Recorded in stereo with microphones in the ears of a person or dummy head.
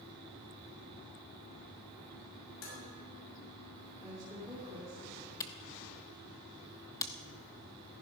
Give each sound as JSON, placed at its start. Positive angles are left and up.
{"t": 2.6, "sound": "dishes clattering", "side_deg": 85, "distance_m": 6.0}
{"t": 4.0, "sound": "a woman speaking", "side_deg": -20, "distance_m": 3.0}
{"t": 5.4, "sound": "a camera shutter", "side_deg": 15, "distance_m": 0.9}